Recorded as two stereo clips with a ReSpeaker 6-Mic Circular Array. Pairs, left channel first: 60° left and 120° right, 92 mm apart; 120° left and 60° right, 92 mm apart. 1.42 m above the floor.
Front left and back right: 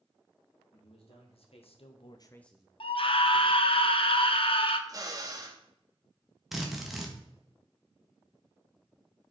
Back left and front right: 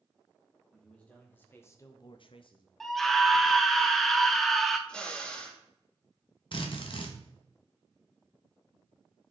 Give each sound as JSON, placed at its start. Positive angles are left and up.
{"t": 0.7, "sound": "a man speaking", "azimuth_deg": 40, "distance_m": 2.5}
{"t": 2.8, "sound": "a scream", "azimuth_deg": 35, "distance_m": 0.9}
{"t": 4.9, "sound": "a drill", "azimuth_deg": -160, "distance_m": 1.1}
{"t": 6.5, "sound": "a drill", "azimuth_deg": 155, "distance_m": 1.3}